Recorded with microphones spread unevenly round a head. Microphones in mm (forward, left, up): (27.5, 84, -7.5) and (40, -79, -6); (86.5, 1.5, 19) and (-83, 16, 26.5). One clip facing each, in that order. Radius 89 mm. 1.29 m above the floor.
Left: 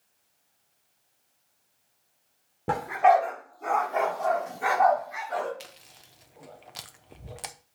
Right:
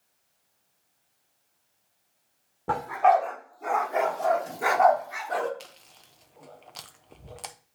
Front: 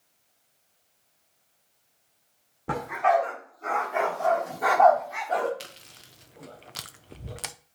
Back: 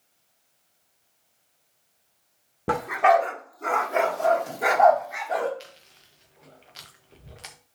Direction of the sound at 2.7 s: 165° left.